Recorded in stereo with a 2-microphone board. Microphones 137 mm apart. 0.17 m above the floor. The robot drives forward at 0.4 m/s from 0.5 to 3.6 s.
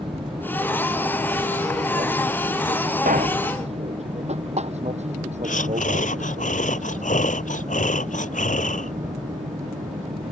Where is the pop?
85° right.